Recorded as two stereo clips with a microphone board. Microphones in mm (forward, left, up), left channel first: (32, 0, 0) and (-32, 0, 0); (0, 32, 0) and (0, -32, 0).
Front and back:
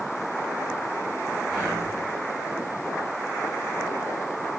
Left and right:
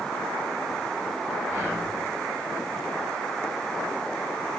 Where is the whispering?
85° right, 1.7 m.